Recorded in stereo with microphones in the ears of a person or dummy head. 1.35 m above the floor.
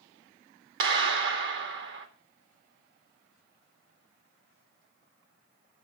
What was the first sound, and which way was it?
A clap, 75° right (ahead or behind).